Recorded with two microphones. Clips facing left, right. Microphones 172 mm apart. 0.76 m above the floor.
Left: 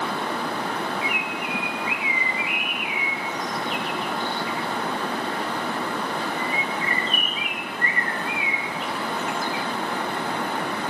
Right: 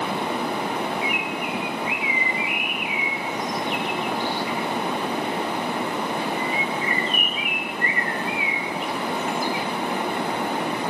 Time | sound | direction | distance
1.0 | a bird | 35° right (ahead or behind) | 4 m